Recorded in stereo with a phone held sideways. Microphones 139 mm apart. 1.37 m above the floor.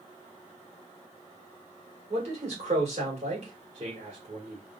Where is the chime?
I don't hear a chime.